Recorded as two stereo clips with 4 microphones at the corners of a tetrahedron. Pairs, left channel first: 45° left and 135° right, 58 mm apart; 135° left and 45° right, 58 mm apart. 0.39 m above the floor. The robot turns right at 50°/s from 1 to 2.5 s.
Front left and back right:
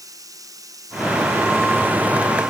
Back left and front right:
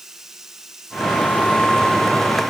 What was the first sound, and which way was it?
Running water, 125° right.